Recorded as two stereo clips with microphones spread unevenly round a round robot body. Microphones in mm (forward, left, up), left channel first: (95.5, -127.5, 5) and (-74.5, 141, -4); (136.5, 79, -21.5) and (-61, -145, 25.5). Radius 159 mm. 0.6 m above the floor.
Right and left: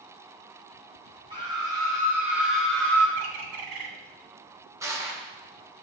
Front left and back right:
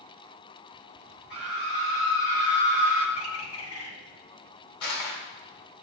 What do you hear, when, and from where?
1.3 s a scream: 50° left, 5 m; by 3.1 s 25° left, 3.5 m
3.2 s a bird: 100° left, 1.5 m
4.8 s crushing: 45° left, 1.9 m